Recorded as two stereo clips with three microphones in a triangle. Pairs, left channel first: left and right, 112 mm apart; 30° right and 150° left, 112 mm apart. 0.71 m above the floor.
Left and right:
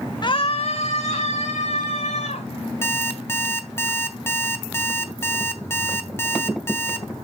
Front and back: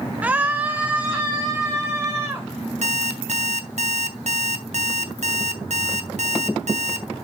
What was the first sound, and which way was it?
A scream, 80° left.